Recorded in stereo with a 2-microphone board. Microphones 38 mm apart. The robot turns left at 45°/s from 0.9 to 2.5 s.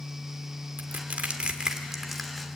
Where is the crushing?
50° right (ahead or behind), 2 m; by 2.5 s 15° left (ahead or behind), 2 m.